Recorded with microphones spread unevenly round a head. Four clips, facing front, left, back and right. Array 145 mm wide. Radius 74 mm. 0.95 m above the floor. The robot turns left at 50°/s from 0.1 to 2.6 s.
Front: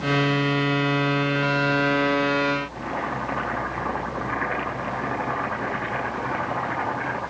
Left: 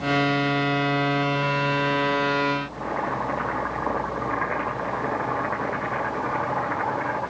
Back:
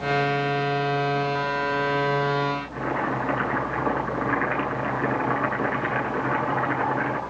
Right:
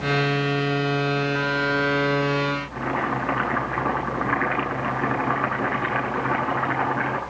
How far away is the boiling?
About 8.5 m.